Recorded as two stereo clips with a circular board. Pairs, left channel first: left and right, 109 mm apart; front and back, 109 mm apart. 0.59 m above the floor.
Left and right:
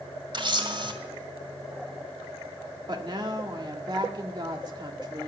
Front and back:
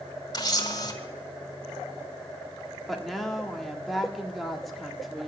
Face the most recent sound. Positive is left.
turn(degrees=-90)